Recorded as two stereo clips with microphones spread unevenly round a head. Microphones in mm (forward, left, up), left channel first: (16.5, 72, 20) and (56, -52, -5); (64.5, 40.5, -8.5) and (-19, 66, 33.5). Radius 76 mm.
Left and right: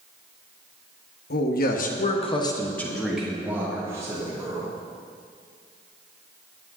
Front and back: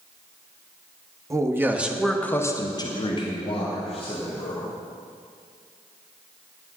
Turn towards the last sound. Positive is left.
turn(degrees=-5)